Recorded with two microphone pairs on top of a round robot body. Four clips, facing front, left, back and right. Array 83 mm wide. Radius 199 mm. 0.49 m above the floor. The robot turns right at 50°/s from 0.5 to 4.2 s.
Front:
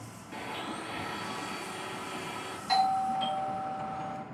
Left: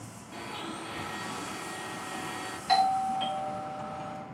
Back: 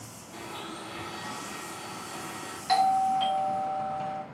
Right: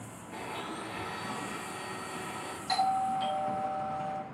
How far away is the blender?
About 5.5 m.